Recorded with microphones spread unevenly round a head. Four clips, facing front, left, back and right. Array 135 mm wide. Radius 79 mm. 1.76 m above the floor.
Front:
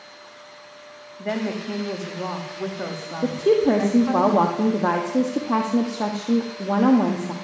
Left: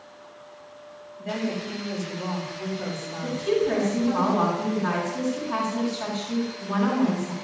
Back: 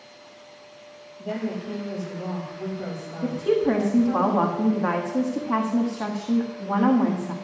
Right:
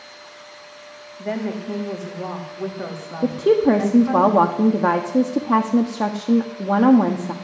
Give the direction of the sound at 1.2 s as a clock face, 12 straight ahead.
1 o'clock.